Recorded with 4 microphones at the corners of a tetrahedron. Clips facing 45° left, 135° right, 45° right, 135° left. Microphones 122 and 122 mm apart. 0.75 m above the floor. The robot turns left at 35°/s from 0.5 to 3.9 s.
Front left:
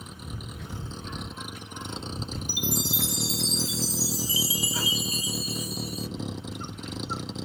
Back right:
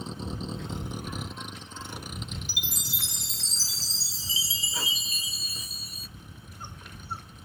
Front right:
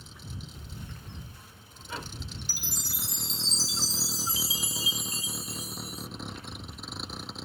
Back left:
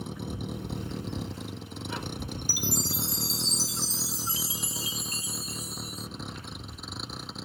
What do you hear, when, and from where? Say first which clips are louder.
0.0 s a vehicle: back right 6 dB, back left 11 dB; 165° left; by 7.5 s 45° left
2.5 s a chime: front left 11 dB, back left 10 dB; 145° right; by 6.1 s 165° left